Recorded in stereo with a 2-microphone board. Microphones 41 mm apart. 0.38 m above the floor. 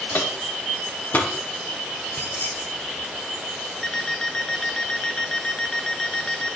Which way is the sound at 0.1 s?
60° left (ahead or behind).